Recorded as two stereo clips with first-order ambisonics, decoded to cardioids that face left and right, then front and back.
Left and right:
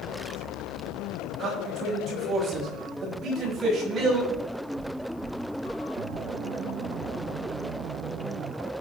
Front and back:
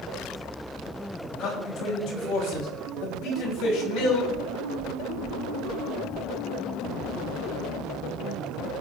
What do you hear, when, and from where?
1.4 s a man speaking: 25° right, 6.5 m
4.3 s knocking: 65° right, 6 m